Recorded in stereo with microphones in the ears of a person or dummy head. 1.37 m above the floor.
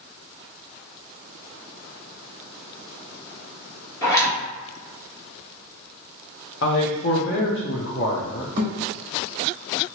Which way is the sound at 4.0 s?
20° left (ahead or behind).